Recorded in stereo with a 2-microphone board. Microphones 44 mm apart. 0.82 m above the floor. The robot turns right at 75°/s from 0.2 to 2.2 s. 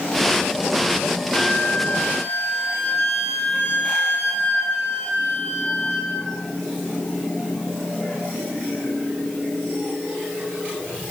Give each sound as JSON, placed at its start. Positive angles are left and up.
{"t": 1.3, "sound": "a flute", "azimuth_deg": 45, "distance_m": 6.5}